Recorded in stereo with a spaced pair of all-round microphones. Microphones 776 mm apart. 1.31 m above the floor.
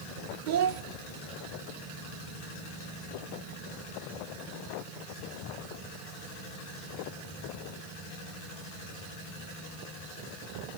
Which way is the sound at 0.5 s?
75° right (ahead or behind).